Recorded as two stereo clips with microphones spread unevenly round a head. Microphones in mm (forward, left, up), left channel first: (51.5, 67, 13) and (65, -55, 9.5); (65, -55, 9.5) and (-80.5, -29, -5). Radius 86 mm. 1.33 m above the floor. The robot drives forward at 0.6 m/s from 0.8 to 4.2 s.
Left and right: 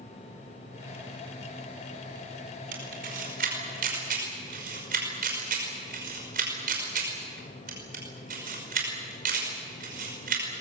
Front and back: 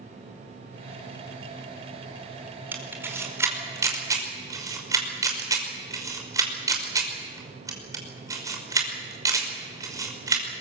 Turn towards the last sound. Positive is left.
turn(degrees=-120)